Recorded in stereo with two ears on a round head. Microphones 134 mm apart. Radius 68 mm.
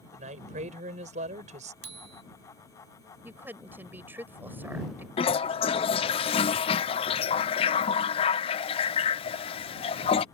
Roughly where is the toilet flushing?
Left.